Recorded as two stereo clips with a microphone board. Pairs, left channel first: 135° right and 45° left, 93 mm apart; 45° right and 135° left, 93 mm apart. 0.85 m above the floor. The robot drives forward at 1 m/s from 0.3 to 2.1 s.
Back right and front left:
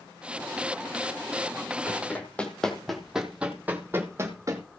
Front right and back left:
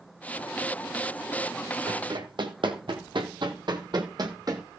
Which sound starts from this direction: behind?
Running footsteps, at 1.9 s.